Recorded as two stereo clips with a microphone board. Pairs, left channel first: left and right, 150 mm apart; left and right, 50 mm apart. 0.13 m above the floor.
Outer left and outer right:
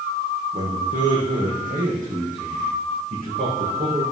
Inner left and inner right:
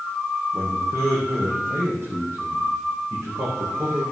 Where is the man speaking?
60° right (ahead or behind), 5.5 m; by 4.0 s 65° right (ahead or behind), 8 m.